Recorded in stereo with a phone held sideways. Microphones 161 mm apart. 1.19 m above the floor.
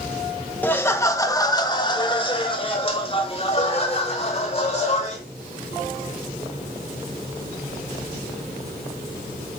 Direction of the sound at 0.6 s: 10° left (ahead or behind).